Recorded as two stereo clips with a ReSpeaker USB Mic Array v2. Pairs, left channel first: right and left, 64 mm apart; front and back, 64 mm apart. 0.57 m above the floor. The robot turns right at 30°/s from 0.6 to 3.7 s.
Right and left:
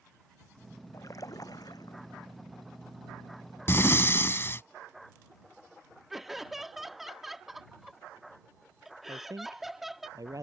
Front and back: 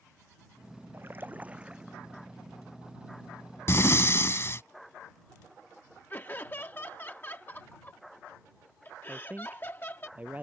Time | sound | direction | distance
0.9 | a splash | 130° right | ?
3.7 | breathing | 45° right | ?
6.1 | laughter | 5° left | ?
9.1 | a man speaking | 115° left | ?